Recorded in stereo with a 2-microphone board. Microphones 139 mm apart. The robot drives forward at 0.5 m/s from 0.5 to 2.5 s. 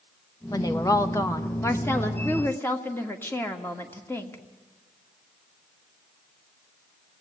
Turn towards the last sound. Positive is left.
turn(degrees=15)  # may be behind; listen again after turning